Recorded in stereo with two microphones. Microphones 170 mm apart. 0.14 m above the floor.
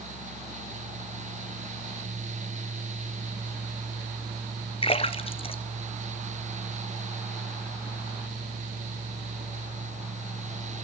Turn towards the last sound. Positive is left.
turn(degrees=35)  # may be behind; listen again after turning